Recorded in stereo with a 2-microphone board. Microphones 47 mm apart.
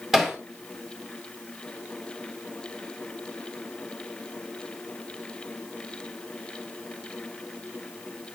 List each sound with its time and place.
0.1 s hammering: 10° right (ahead or behind), 2 m